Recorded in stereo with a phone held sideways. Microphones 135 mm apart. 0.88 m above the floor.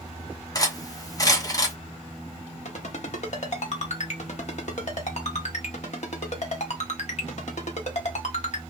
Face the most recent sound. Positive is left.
turn(degrees=60)  # may be behind; listen again after turning